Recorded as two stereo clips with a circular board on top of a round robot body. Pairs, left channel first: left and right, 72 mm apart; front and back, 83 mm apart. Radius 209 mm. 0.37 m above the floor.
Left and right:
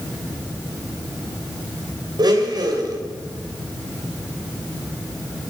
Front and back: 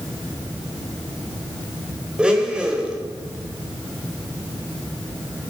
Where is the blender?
100° right, 3 m.